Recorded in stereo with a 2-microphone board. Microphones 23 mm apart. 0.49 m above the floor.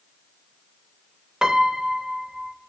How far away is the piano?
About 0.5 m.